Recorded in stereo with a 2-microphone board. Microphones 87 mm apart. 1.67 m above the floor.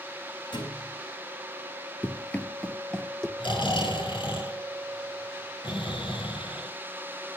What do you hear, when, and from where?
0.5 s a thud: 65° left (ahead or behind), 5 m
2.0 s running footsteps: 15° left (ahead or behind), 1.7 m; by 3.3 s 5° left (ahead or behind), 2 m
3.4 s snoring: 70° left (ahead or behind), 6 m